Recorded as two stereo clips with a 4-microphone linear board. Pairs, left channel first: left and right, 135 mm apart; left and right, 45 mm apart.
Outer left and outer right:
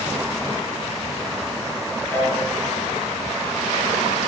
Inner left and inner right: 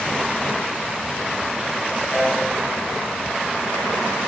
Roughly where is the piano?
Centre.